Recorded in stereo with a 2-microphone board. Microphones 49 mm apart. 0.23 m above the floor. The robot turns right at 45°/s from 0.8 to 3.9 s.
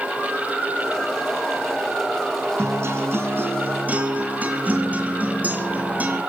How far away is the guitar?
About 3 m.